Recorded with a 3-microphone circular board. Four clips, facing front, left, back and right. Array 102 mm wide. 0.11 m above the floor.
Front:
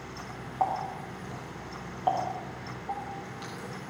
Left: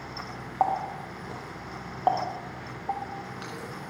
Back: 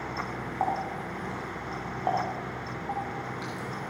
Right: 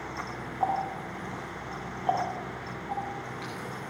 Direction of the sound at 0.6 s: 100° left.